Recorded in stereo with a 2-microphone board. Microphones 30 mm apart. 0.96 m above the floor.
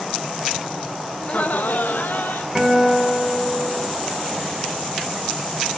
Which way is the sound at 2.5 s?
5° right (ahead or behind).